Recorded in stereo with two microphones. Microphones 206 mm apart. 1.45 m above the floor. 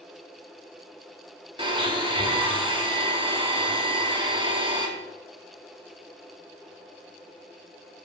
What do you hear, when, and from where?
1.6 s a blender: 25° right (ahead or behind), 2 m